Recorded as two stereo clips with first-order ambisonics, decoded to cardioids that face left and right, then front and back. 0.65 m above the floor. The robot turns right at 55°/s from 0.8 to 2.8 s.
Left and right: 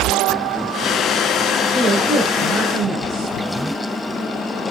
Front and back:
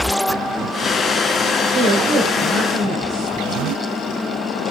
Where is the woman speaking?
170° left, 3.5 m; by 3.3 s 130° right, 3.5 m.